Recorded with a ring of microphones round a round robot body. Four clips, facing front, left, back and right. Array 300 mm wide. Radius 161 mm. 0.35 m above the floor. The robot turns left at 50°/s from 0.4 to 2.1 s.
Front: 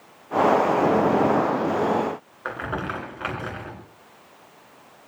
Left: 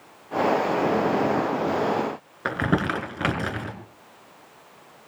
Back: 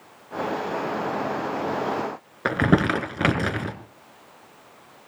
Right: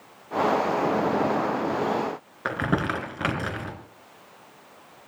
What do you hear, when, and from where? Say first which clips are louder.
2.5 s crumpling: left 2 dB, back 9 dB; 175° left, 3 m